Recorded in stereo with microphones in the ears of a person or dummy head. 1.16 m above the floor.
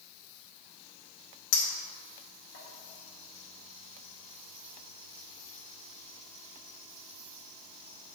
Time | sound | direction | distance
1.5 | a clink | 75° left (ahead or behind) | 1.7 m